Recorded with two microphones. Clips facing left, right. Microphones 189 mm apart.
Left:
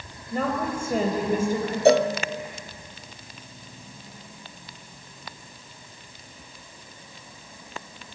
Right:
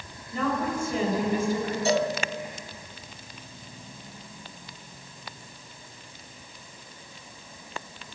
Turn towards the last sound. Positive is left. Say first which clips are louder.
# left 8 dB
turn(degrees=60)  # may be behind; listen again after turning